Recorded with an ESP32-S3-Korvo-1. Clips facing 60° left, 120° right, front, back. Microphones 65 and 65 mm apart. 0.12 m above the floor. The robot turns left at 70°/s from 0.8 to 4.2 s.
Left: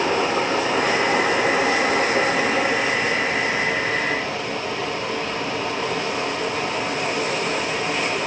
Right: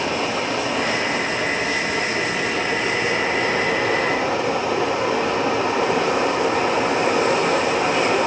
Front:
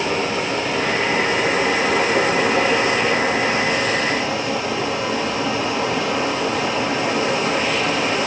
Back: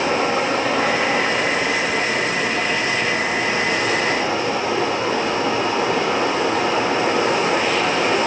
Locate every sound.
0.0 s running water: 115° left, 2.5 m; by 8.3 s 120° right, 2.5 m